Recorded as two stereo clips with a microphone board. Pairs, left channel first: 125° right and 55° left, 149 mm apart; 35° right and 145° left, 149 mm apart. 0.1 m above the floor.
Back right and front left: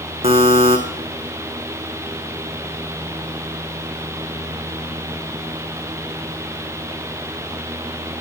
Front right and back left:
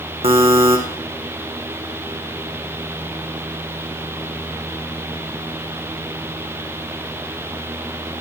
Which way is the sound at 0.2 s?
100° left.